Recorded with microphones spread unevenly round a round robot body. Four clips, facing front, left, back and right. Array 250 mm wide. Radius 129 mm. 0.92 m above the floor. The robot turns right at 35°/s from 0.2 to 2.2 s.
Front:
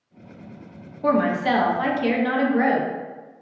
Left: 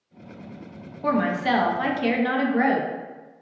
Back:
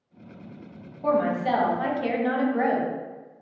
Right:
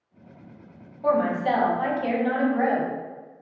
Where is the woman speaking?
40° left, 1.2 m; by 2.9 s 85° left, 1.2 m.